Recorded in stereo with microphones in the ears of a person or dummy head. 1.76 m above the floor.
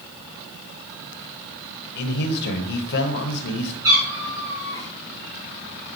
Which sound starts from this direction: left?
A man speaking, at 1.9 s.